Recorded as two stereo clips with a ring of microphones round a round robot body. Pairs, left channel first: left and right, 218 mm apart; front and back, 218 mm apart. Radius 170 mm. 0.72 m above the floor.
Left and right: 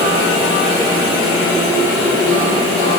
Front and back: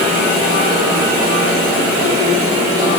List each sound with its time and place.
Only background noise.